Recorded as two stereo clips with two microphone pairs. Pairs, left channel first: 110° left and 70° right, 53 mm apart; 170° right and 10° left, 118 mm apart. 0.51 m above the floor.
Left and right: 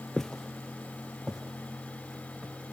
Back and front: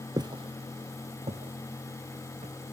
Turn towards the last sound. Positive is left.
turn(degrees=10)